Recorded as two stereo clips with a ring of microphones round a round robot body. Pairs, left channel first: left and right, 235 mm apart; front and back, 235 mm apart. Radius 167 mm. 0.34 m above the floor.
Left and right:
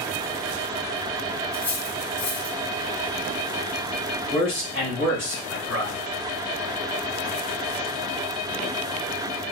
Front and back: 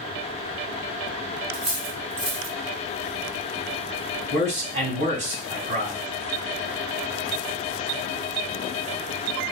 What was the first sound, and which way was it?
Cutlery clinking, 155° left.